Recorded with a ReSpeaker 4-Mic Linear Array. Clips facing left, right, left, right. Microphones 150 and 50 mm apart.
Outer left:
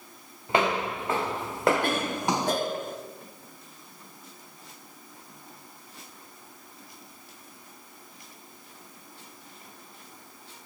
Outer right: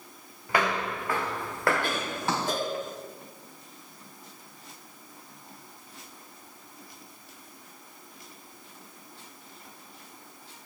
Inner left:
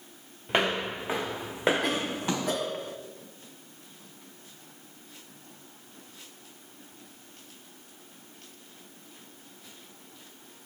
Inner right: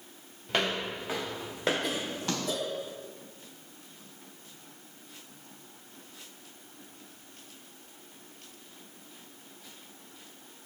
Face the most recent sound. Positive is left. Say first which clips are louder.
# outer left 3 dB, inner left 4 dB
turn(degrees=55)  # may be behind; listen again after turning